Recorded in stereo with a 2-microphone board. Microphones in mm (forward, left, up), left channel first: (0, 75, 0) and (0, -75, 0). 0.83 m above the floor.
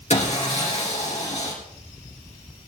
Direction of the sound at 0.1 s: 50° left (ahead or behind).